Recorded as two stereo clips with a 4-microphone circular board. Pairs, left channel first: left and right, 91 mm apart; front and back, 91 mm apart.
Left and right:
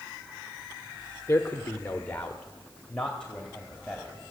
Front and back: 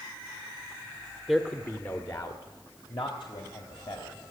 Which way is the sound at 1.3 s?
90° left.